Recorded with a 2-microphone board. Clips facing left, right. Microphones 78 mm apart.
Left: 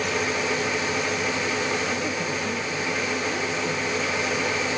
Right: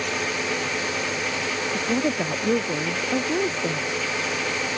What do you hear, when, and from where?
1.7 s a woman speaking: 45° right (ahead or behind)